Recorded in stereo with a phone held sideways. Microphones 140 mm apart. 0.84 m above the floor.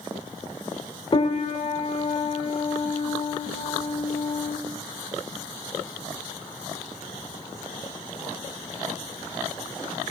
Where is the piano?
40° left (ahead or behind), 0.6 m.